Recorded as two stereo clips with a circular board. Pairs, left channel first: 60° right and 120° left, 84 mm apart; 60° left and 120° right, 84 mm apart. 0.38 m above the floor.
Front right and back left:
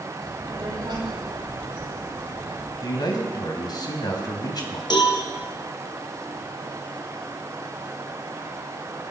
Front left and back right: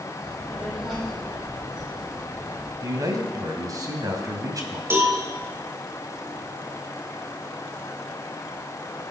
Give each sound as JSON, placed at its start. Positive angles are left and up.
{"t": 0.2, "sound": "a child speaking", "azimuth_deg": 150, "distance_m": 8.5}
{"t": 2.8, "sound": "a man speaking", "azimuth_deg": -85, "distance_m": 3.0}
{"t": 4.9, "sound": "a cowbell", "azimuth_deg": -65, "distance_m": 2.5}